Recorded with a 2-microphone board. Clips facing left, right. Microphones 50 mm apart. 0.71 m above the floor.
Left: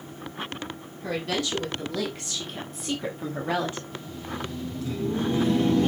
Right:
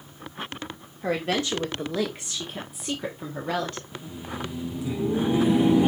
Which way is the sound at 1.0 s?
35° right (ahead or behind).